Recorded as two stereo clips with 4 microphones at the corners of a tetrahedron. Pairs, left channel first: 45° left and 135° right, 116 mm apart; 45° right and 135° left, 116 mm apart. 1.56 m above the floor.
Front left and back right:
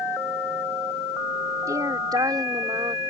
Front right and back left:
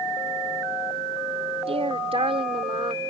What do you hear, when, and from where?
1.7 s a woman speaking: 165° left; by 3.0 s 175° left